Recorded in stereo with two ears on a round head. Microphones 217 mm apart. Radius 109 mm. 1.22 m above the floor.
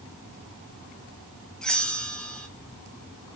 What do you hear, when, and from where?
1.6 s a bell: 5° left (ahead or behind), 1.2 m